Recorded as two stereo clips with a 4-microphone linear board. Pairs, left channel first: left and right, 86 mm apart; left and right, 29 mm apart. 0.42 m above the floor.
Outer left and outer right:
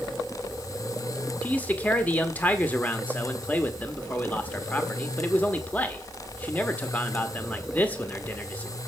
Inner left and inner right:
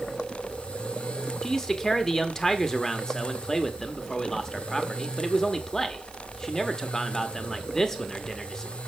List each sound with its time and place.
1.4 s a man speaking: 20° left (ahead or behind), 1.0 m